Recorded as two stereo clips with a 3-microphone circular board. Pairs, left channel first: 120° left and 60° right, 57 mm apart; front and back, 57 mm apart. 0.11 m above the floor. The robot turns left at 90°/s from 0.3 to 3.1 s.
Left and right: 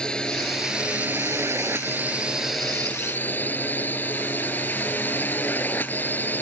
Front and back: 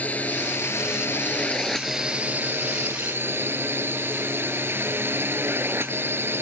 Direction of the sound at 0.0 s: 50° left.